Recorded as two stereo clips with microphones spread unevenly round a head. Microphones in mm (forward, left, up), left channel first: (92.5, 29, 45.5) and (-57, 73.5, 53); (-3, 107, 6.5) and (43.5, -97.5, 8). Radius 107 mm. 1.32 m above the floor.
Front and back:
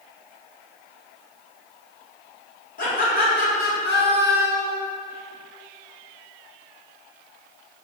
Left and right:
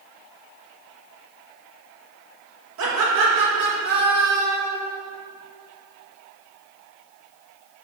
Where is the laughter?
55° right, 2.5 m; by 4.8 s 15° right, 1.6 m.